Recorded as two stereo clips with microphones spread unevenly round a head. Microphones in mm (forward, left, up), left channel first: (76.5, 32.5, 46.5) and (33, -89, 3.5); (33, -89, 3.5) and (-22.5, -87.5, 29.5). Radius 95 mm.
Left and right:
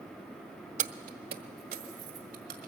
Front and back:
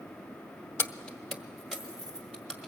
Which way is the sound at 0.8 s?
70° right.